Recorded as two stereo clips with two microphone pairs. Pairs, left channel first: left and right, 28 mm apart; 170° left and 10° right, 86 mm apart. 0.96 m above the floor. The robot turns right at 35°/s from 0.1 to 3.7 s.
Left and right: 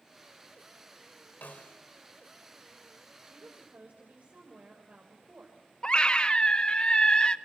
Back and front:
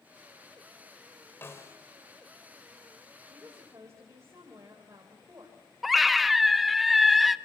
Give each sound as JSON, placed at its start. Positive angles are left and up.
{"t": 1.4, "sound": "a snare drum", "azimuth_deg": 105, "distance_m": 2.5}
{"t": 3.2, "sound": "a woman speaking", "azimuth_deg": -85, "distance_m": 4.0}
{"t": 5.8, "sound": "a scream", "azimuth_deg": 80, "distance_m": 0.9}